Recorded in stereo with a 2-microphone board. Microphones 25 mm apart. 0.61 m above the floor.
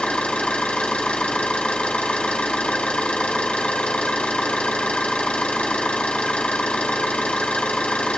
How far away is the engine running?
About 4 m.